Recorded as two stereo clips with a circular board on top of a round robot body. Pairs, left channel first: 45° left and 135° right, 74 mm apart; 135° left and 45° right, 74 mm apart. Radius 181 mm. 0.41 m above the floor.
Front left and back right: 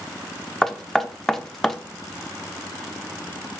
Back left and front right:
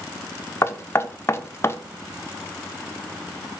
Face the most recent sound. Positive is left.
turn(degrees=125)